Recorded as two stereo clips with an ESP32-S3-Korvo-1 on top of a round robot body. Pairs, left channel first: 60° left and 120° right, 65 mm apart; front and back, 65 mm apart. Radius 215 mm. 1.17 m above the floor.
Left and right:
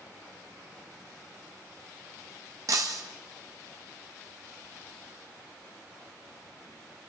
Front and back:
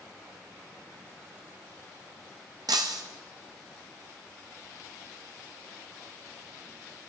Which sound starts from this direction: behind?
Breaking glass, at 2.7 s.